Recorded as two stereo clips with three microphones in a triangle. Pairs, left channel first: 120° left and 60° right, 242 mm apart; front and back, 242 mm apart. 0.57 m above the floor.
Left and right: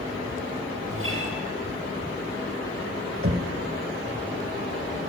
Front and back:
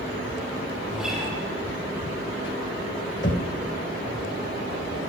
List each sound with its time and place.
0.9 s a guitar: 90° right, 6 m
3.2 s knocking: 35° right, 2 m